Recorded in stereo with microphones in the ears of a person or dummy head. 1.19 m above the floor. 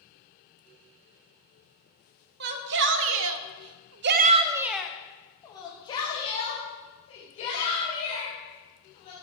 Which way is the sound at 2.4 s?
60° right (ahead or behind).